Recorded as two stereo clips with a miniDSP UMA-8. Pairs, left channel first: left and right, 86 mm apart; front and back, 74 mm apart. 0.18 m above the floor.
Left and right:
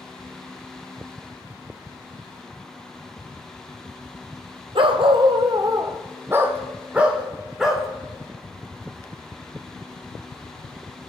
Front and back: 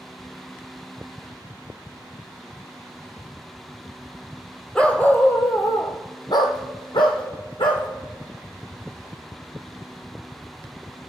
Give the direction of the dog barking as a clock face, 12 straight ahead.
3 o'clock.